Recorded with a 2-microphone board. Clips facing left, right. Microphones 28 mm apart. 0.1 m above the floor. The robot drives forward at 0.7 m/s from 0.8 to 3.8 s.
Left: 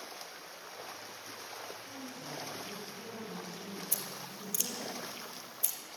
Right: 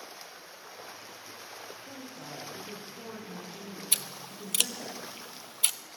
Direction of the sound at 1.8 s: 45° right (ahead or behind).